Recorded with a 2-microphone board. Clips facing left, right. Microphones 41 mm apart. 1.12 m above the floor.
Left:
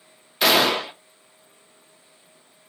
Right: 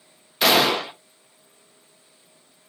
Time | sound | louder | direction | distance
0.4 | a gunshot | even | 5° left (ahead or behind) | 0.5 m